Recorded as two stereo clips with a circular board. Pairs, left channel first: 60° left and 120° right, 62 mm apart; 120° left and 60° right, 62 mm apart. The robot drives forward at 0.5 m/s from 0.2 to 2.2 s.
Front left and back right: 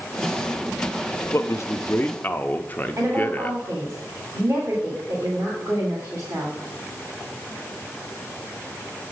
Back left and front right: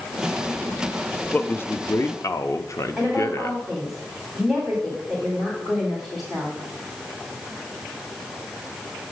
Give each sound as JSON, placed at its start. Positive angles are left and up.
{"t": 1.3, "sound": "a man speaking", "azimuth_deg": 65, "distance_m": 0.7}
{"t": 3.0, "sound": "a woman speaking", "azimuth_deg": -150, "distance_m": 3.0}